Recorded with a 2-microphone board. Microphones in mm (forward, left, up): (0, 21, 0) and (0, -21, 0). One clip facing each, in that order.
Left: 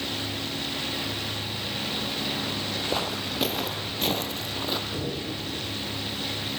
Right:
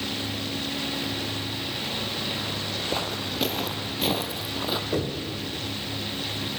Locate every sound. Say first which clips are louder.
2.9 s footsteps: even; 5° left (ahead or behind), 1.3 m; by 4.8 s 10° right (ahead or behind), 1.5 m
4.9 s knocking: right 3 dB; 60° right (ahead or behind), 4.5 m